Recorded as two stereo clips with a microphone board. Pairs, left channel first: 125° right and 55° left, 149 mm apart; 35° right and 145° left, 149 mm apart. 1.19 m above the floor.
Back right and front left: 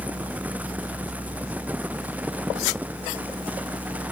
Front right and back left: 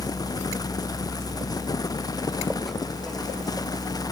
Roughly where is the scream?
I don't hear a scream.